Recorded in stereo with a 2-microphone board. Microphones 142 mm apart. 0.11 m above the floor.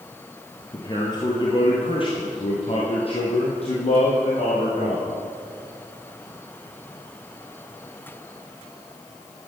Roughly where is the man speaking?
Left.